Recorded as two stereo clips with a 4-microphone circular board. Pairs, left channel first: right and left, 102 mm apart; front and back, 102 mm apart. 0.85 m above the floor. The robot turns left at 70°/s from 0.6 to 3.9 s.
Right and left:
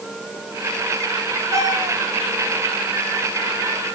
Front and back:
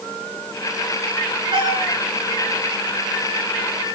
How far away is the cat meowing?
About 2.5 m.